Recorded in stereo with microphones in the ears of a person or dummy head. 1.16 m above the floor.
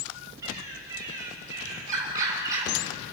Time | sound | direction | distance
0.4 | a bird | 20° right (ahead or behind) | 7 m